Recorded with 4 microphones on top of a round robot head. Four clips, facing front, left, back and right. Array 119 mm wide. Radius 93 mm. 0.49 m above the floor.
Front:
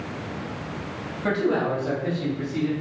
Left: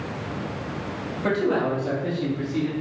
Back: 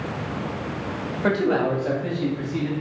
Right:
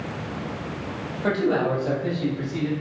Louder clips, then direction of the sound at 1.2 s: Right 1 dB, back 2 dB; 170° right.